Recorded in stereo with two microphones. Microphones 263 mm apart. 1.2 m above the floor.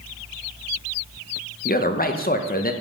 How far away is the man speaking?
About 0.7 m.